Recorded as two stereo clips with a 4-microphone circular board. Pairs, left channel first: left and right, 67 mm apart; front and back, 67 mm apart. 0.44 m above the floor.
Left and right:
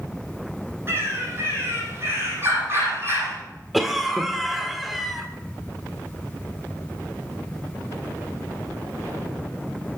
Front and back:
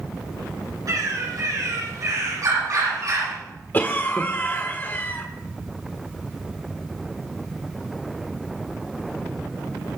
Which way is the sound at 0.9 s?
145° right.